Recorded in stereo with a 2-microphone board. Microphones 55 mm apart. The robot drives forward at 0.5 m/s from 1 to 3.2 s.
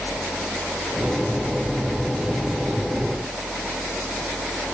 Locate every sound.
Only background noise.